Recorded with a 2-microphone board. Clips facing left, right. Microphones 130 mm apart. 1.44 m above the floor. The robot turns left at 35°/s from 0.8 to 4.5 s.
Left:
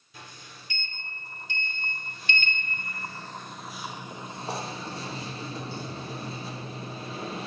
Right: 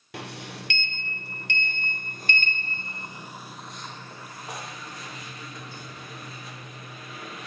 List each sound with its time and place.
0.1 s a sliding door: 80° right, 1.0 m; by 7.5 s 150° left, 1.0 m